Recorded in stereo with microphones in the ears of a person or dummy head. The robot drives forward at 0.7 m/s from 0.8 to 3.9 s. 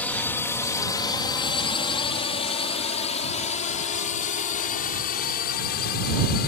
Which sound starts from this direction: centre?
A drone, at 0.0 s.